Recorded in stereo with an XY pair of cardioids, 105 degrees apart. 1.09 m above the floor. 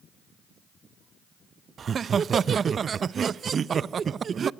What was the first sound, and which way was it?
Laughter, 45° right.